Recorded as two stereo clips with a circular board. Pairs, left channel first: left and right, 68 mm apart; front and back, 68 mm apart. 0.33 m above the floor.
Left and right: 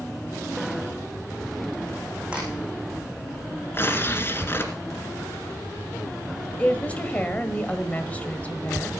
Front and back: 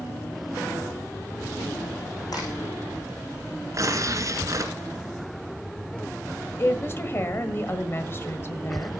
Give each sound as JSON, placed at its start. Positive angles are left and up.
{"t": 2.3, "sound": "a crack", "azimuth_deg": -15, "distance_m": 6.5}
{"t": 3.7, "sound": "tearing paper", "azimuth_deg": 145, "distance_m": 2.0}
{"t": 6.6, "sound": "a woman speaking", "azimuth_deg": 30, "distance_m": 1.4}